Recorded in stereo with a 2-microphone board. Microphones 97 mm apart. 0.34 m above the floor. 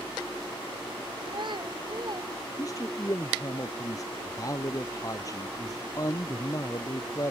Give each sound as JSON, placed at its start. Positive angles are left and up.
{"t": 1.2, "sound": "a child speaking", "side_deg": -55}
{"t": 2.6, "sound": "a man speaking", "side_deg": 35}